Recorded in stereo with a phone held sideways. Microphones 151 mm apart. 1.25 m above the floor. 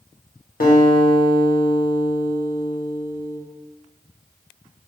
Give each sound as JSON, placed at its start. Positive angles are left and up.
{"t": 0.6, "sound": "a guitar", "side_deg": 70, "distance_m": 1.0}